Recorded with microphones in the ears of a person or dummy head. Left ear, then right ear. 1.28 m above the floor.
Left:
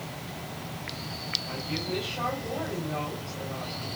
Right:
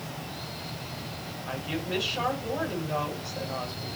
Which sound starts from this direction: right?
A woman speaking, at 1.5 s.